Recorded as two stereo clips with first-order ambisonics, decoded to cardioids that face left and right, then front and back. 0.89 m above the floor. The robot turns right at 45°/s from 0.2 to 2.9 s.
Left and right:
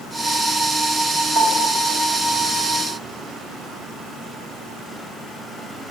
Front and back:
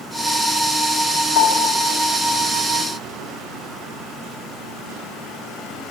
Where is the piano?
15° right, 1.7 m; by 1.8 s 10° left, 1.7 m.